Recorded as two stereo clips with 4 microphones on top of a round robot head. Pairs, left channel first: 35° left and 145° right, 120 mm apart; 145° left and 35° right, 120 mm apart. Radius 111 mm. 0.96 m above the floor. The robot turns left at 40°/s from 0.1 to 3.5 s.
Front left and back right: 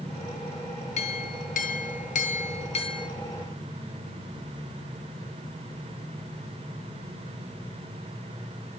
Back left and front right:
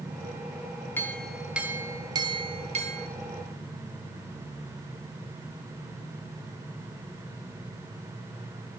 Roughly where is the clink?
Left.